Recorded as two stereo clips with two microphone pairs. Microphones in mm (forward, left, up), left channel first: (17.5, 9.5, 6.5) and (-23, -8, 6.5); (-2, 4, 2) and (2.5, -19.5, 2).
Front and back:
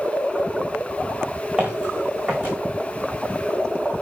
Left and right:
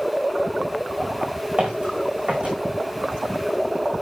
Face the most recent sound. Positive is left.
turn(degrees=-90)